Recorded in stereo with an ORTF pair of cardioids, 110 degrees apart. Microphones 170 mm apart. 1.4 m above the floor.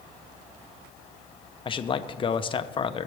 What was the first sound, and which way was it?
A man speaking, 30° left.